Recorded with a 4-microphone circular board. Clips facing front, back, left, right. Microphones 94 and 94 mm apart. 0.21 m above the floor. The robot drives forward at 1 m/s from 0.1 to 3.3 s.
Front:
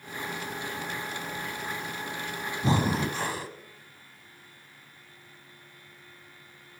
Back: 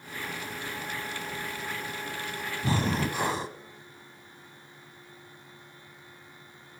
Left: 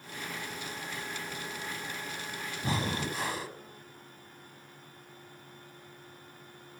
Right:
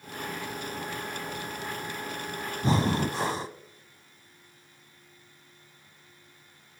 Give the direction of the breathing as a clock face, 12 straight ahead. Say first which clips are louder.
Front 2 dB, right 7 dB; 1 o'clock.